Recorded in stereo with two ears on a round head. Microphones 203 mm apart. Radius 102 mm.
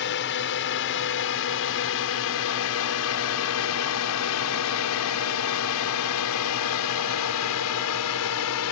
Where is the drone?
50° left (ahead or behind); by 8.7 s 75° left (ahead or behind).